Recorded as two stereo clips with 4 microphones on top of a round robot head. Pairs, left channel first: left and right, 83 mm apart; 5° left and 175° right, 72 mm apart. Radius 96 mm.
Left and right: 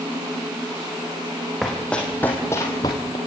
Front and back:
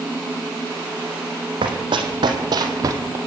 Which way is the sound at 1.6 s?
175° left.